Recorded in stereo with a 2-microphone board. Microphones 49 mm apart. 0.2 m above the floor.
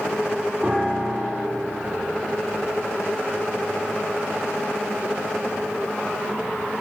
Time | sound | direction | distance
0.6 | a piano | 10° right (ahead or behind) | 1.5 m